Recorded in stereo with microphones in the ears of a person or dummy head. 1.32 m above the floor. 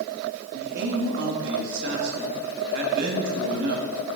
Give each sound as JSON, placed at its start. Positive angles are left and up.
{"t": 0.5, "sound": "a man speaking", "side_deg": -65, "distance_m": 2.0}